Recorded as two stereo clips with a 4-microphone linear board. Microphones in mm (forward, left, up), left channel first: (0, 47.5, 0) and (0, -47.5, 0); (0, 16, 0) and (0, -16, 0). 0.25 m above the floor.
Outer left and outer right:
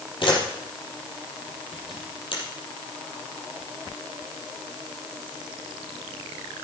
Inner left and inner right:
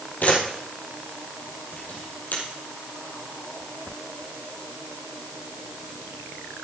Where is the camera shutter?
60° left (ahead or behind), 4 m.